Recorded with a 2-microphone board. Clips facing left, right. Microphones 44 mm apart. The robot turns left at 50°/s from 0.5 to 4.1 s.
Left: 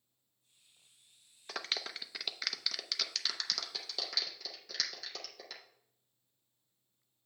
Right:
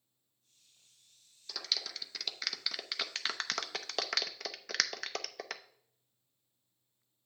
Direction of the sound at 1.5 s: 45° left (ahead or behind).